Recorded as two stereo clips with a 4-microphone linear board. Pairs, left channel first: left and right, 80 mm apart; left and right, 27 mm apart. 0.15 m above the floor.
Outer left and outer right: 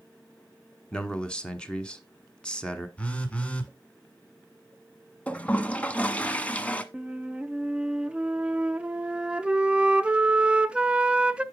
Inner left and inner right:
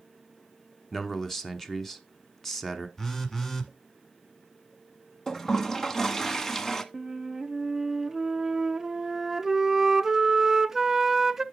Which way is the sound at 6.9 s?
15° right (ahead or behind).